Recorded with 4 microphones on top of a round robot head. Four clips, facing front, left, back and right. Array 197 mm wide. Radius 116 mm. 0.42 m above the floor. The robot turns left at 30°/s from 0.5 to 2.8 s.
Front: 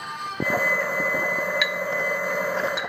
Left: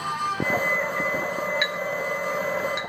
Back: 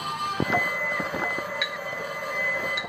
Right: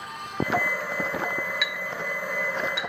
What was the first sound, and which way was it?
A clink, straight ahead.